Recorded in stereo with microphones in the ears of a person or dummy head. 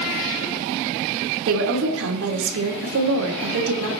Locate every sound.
1.5 s a woman speaking: 75° right (ahead or behind), 2.5 m